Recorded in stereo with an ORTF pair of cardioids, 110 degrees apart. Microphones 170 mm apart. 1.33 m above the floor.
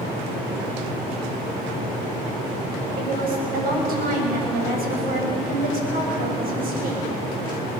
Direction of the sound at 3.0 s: 55° right.